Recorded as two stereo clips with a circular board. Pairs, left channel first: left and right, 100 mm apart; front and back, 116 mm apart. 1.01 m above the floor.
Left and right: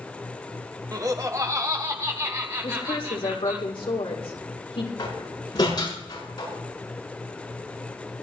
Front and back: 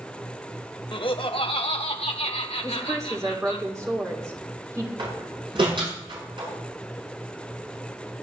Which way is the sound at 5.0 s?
135° left.